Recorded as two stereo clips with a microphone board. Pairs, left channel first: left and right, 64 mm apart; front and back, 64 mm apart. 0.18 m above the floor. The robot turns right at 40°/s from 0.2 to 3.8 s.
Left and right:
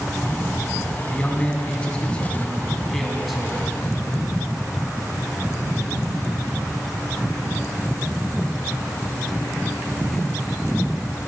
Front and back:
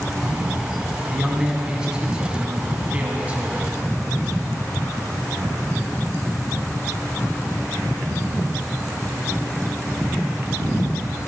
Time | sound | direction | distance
1.1 | a man speaking | 95° left | 1.1 m